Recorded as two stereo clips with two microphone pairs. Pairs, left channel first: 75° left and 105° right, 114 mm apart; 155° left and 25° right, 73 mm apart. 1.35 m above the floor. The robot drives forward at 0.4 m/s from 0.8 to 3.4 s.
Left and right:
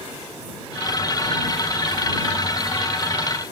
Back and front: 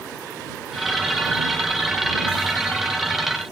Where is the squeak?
No squeak in this recording.